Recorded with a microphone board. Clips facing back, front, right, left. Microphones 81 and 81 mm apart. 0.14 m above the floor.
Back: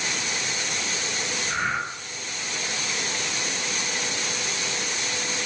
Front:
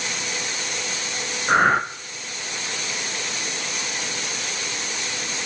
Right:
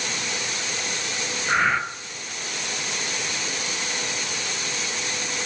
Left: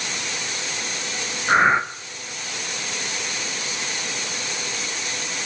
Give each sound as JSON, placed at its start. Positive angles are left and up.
{"t": 1.5, "sound": "breathing", "azimuth_deg": 30, "distance_m": 0.7}